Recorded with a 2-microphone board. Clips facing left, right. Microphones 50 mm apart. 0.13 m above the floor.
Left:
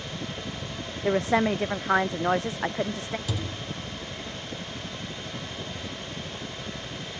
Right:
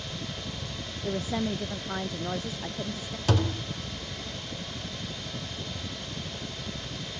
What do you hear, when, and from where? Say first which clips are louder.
0.0 s a helicopter: left 2 dB; 60° left (ahead or behind); by 7.2 s 25° left (ahead or behind)
1.0 s a woman speaking: left 8 dB; 80° left
3.3 s a thud: right 5 dB; 60° right (ahead or behind)